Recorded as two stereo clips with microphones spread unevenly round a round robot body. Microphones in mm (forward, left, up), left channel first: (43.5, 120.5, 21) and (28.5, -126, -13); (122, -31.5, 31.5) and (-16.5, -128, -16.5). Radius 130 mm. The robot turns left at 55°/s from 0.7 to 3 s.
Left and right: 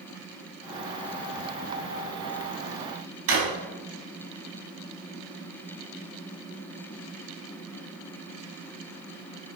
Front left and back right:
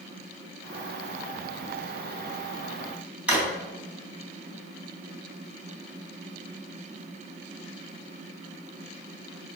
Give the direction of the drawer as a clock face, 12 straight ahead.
2 o'clock.